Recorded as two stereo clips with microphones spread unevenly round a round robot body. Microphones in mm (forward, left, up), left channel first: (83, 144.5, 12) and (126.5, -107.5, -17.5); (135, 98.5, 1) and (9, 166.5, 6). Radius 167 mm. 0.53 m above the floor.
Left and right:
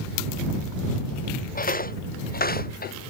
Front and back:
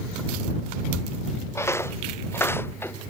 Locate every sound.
1.6 s footsteps: 45° left